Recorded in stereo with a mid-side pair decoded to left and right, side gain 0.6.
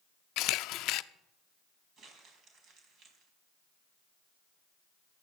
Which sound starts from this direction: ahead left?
A camera shutter, at 0.4 s.